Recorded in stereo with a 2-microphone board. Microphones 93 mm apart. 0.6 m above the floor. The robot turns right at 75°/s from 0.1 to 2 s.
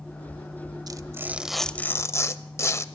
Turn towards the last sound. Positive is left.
turn(degrees=35)